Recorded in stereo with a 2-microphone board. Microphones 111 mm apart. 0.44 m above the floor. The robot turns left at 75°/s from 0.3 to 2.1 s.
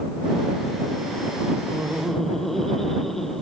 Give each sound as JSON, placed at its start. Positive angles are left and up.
{"t": 1.7, "sound": "laughter", "azimuth_deg": -150}